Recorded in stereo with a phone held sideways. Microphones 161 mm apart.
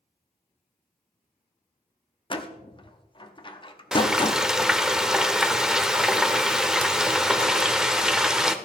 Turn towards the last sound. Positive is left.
turn(degrees=-5)  # may be behind; listen again after turning